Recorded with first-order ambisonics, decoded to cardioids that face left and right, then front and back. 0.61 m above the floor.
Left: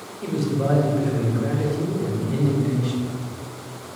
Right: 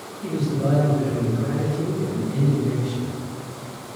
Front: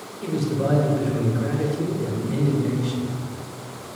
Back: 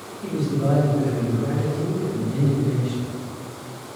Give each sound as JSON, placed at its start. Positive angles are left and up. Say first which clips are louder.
{"t": 0.2, "sound": "a man speaking", "louder": "left 1 dB, front 1 dB", "azimuth_deg": 40, "distance_m": 1.2}